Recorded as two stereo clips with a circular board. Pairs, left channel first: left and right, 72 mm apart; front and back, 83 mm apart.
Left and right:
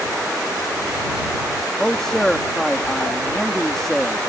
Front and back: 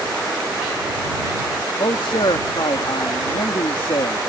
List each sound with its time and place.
1.8 s a man speaking: 5° left